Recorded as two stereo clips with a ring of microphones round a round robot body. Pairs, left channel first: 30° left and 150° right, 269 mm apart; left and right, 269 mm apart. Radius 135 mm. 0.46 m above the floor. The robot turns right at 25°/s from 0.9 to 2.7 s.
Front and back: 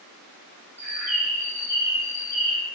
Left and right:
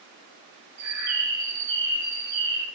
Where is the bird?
65° right, 0.6 m; by 2.6 s 25° right, 0.6 m.